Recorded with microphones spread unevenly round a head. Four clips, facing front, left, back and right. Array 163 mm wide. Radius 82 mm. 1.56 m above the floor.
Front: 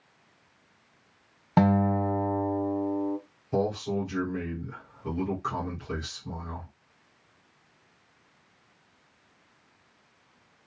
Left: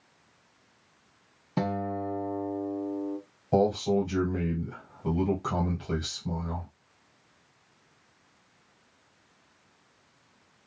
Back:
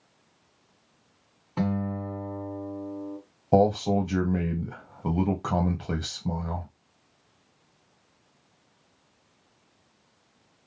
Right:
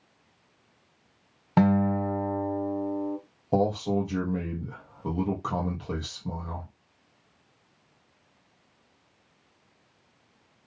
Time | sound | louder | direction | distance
1.6 | a guitar | right 7 dB, front 6 dB | 15° right | 1.1 m
3.5 | a man speaking | left 1 dB, back 7 dB | 165° right | 1.6 m